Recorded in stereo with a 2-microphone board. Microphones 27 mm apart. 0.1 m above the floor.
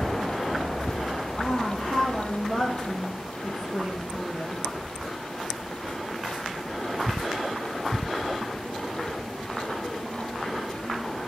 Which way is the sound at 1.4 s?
15° left (ahead or behind).